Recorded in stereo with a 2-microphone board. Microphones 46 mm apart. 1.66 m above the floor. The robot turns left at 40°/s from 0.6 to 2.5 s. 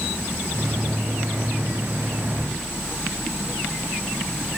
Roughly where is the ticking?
No ticking in this recording.